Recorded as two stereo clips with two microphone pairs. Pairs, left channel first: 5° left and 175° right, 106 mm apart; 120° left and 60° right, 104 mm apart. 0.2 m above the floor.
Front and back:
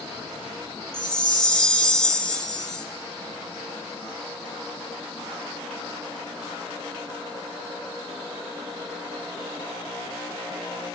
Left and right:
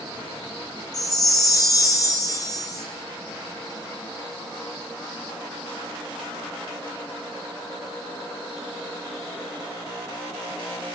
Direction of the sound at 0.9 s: 85° left.